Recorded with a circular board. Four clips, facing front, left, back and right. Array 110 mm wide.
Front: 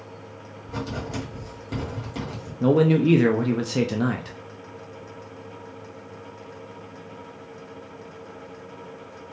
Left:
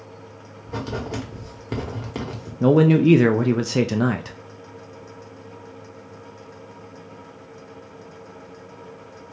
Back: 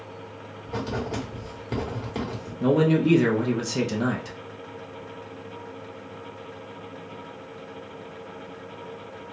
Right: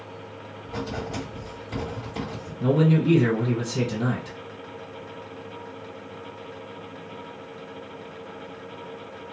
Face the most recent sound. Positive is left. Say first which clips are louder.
# left 6 dB, front 2 dB
turn(degrees=80)